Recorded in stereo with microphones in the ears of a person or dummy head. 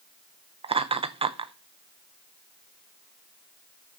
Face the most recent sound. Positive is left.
turn(degrees=-20)  # may be behind; listen again after turning